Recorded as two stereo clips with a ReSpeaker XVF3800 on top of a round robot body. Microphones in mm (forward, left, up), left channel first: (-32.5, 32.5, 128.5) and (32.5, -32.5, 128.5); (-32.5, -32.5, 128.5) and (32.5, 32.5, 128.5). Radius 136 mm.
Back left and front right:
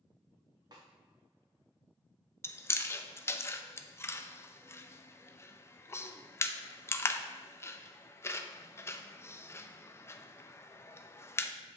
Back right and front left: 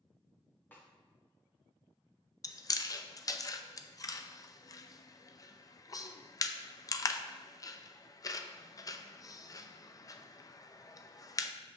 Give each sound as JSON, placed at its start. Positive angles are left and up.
{"t": 0.7, "sound": "a snare drum", "azimuth_deg": -70, "distance_m": 1.6}
{"t": 2.4, "sound": "chewing", "azimuth_deg": -170, "distance_m": 0.6}